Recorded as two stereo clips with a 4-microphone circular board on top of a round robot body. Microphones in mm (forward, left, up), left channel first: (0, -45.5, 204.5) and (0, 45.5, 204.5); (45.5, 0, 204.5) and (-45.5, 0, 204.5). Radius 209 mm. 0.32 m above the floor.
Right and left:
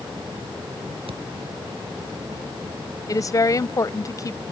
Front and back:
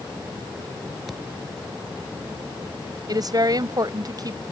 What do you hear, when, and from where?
1.1 s a thud: 90° left
3.1 s a woman speaking: 140° right